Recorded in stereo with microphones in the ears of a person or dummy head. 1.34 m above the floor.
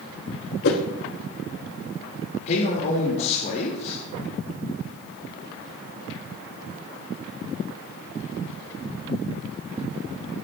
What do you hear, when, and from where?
0.6 s a whoosh: 65° left (ahead or behind), 1.3 m
2.5 s a man speaking: 45° left (ahead or behind), 2 m